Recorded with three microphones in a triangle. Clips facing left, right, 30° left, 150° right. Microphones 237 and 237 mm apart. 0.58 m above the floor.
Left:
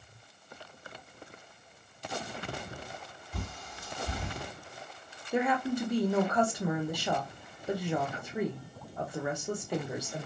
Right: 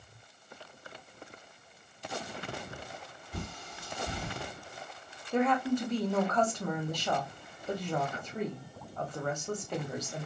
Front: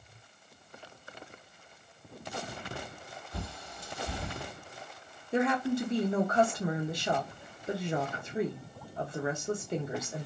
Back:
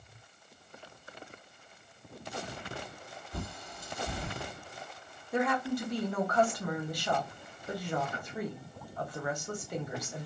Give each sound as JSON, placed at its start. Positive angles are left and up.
{"t": 3.3, "sound": "a bird", "azimuth_deg": -90, "distance_m": 1.5}
{"t": 5.3, "sound": "a woman speaking", "azimuth_deg": 30, "distance_m": 0.7}